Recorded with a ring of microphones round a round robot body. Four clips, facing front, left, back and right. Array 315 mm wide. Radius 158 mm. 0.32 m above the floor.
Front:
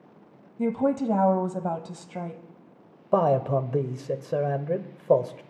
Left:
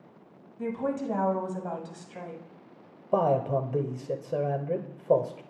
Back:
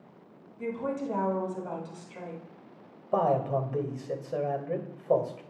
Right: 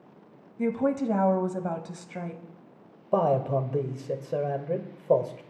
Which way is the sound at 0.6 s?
25° right.